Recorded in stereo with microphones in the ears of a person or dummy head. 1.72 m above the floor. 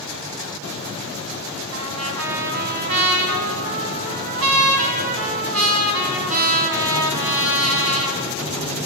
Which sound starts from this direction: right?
A trumpet, at 1.7 s.